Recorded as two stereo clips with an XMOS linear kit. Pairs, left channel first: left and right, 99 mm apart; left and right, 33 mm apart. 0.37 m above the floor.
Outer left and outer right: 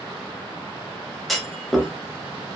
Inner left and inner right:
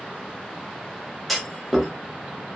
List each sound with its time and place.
1.3 s a clunk: centre (ahead or behind), 0.6 m